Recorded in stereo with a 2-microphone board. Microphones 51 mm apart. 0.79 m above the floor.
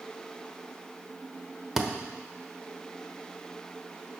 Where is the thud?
10° right (ahead or behind), 1.0 m.